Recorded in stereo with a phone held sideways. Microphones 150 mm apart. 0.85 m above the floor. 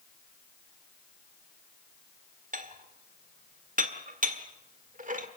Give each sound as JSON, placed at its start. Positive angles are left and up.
{"t": 2.5, "sound": "dishes clattering", "side_deg": -55, "distance_m": 1.7}